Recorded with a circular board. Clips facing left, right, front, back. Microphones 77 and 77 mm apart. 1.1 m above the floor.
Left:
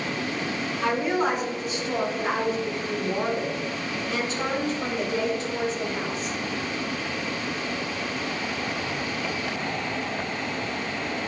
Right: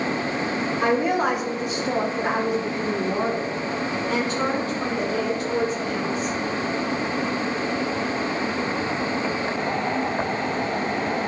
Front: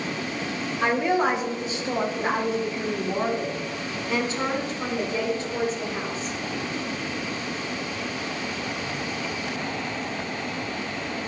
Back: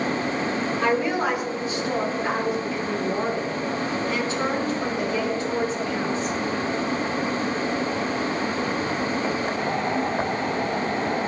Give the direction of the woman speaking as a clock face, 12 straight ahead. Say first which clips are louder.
Right 3 dB, front 2 dB; 2 o'clock.